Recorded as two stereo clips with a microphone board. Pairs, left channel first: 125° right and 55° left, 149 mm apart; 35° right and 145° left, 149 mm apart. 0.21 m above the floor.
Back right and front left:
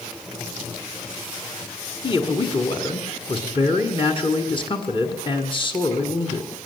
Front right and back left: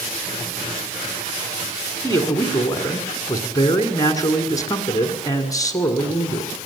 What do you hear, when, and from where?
2.0 s a man speaking: 90° right, 1.9 m